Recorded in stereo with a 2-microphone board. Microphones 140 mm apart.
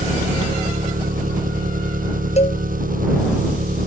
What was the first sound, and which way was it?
An engine running, 80° right.